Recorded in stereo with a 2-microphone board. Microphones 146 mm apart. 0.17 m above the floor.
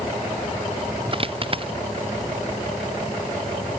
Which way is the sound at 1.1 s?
40° right (ahead or behind).